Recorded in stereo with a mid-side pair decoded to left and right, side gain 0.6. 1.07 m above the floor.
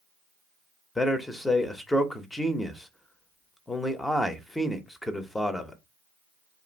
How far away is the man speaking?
About 0.8 m.